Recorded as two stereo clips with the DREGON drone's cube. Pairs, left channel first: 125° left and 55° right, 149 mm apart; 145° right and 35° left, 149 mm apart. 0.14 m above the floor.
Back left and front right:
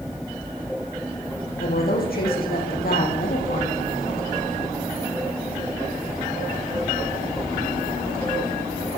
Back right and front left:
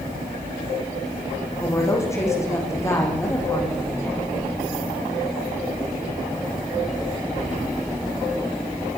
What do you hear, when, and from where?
1.6 s a woman speaking: 140° left, 8.5 m